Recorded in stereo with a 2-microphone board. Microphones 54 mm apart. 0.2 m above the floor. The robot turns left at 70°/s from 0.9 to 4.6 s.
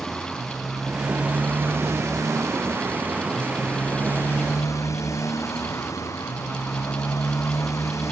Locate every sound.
0.0 s a motorcycle: 5° left; by 8.1 s 105° left